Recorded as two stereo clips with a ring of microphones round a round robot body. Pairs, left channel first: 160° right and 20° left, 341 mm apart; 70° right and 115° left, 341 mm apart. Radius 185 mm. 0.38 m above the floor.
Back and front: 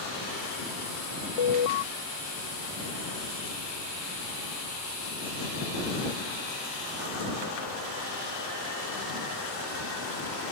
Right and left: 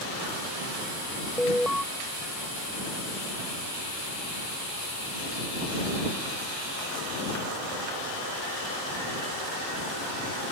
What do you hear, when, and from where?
1.4 s an alarm: 155° right